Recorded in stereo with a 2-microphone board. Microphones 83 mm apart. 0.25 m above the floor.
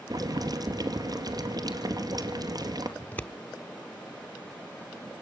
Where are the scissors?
20° left (ahead or behind), 0.9 m.